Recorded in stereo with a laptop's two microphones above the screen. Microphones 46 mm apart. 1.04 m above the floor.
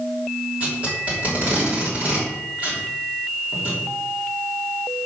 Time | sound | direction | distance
0.6 | tape being pulled | 35° right (ahead or behind) | 3 m